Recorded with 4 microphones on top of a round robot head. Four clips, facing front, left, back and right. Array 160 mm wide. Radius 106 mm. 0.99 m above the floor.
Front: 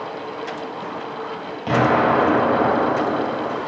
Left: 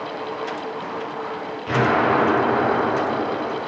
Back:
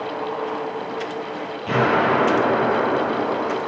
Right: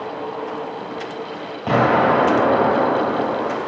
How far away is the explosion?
About 6.5 m.